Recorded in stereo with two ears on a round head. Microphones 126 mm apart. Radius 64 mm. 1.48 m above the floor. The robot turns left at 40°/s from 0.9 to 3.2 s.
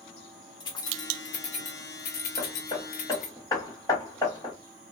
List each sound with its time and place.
0.6 s keys jangling: 30° left (ahead or behind), 0.9 m; by 3.4 s 50° left (ahead or behind), 0.9 m
2.4 s hammering: 45° left (ahead or behind), 1.4 m; by 4.5 s 20° left (ahead or behind), 1.4 m